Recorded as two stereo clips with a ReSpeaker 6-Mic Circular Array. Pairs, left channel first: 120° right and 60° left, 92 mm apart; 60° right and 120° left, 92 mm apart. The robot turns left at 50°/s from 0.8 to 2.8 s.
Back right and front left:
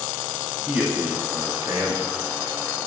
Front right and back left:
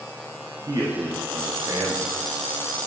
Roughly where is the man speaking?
Behind left.